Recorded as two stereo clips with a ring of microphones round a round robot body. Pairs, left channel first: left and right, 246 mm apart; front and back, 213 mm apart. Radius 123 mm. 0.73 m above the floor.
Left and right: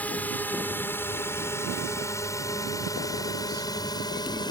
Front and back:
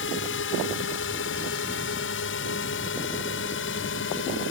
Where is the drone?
5° left; by 4.5 s 20° left.